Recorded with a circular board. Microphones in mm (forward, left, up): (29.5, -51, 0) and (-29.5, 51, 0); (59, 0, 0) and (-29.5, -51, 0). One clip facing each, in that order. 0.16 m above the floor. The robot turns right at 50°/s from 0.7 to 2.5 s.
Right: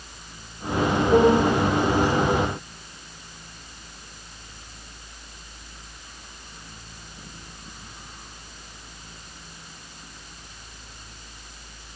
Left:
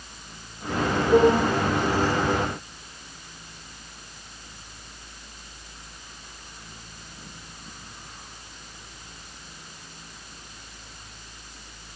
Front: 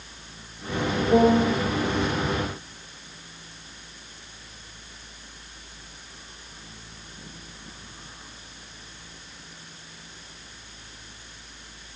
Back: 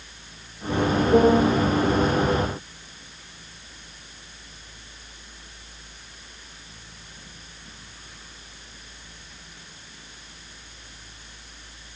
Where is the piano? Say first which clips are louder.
Even, back 1 dB; 20° left, 9.5 m; by 1.5 s 40° left, 9.5 m.